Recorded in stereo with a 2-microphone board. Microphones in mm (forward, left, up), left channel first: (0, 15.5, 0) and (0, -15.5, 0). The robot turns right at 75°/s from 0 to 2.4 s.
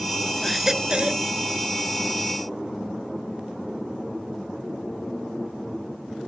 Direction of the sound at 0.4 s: 175° left.